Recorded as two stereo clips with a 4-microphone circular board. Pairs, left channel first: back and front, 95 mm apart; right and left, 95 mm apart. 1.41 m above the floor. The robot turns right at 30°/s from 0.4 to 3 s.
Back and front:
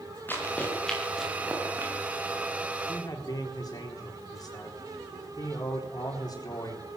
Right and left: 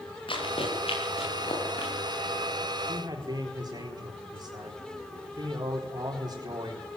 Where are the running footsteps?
110° right, 9.5 m; by 1.9 s 65° right, 8 m.